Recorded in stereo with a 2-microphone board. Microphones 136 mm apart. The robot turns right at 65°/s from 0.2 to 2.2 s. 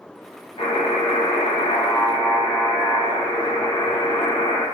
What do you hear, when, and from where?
0.6 s a buzzer: 45° left, 1.3 m; by 4.6 s 150° left, 1.3 m